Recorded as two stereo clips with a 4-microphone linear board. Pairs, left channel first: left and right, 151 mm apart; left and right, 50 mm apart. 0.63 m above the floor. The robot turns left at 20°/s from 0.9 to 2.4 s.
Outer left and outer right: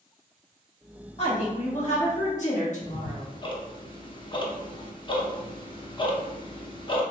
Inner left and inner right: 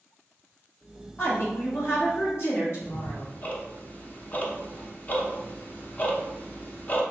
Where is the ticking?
35° left (ahead or behind), 0.6 m.